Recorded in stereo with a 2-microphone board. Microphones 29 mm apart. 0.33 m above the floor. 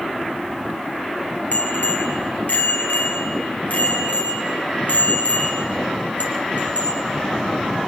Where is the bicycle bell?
75° left (ahead or behind), 4.5 m; by 7.1 s 65° left (ahead or behind), 7 m.